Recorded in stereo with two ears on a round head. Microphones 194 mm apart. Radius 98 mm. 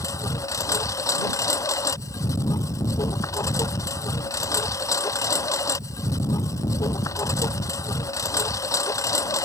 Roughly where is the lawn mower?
Centre.